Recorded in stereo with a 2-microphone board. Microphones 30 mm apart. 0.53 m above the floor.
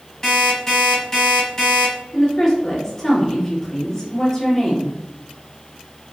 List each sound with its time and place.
0.2 s an alarm clock: 10° left (ahead or behind), 2.0 m
2.1 s a woman speaking: 20° left (ahead or behind), 2.0 m